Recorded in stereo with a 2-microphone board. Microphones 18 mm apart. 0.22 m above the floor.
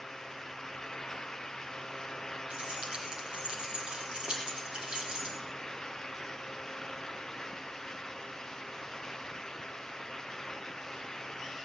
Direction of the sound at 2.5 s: 70° right (ahead or behind).